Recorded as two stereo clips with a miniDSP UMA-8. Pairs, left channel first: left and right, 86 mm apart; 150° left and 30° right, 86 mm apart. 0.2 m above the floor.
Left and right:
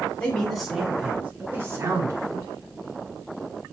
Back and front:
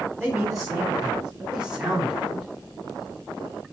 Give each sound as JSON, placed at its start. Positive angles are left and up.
{"t": 0.2, "sound": "a man speaking", "azimuth_deg": 35, "distance_m": 1.3}